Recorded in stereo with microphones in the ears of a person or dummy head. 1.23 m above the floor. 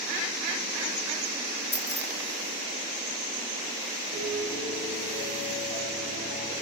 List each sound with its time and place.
1.7 s keys jangling: 65° left (ahead or behind), 3 m
4.1 s a piano: 35° left (ahead or behind), 8 m